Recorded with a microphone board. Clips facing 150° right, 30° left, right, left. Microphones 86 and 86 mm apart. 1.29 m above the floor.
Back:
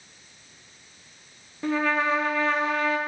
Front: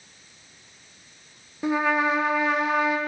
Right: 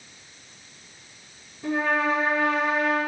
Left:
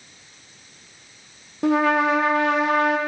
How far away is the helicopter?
No helicopter in this recording.